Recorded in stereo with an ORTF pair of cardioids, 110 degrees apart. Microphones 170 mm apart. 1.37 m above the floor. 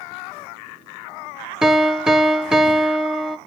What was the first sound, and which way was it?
A piano, 5° right.